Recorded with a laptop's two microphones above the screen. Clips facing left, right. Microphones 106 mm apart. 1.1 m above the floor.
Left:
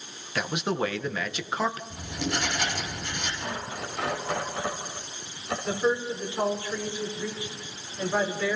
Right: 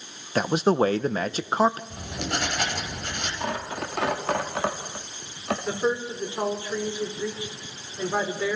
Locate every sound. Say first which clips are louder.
0.3 s a man speaking: right 7 dB; 35° right (ahead or behind), 0.8 m
1.9 s writing: even; 60° right (ahead or behind), 6 m
3.4 s tearing paper: right 4 dB; 75° right (ahead or behind), 3 m
5.7 s a woman speaking: left 2 dB; 20° right (ahead or behind), 3.5 m